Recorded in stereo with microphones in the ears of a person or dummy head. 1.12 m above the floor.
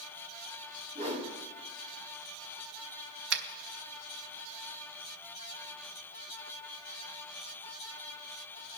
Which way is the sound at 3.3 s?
75° right (ahead or behind).